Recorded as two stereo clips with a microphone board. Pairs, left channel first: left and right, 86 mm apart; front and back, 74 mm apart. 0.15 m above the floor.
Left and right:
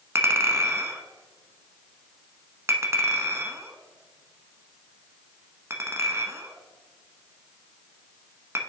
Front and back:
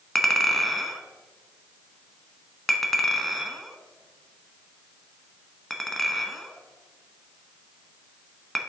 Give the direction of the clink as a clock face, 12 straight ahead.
3 o'clock.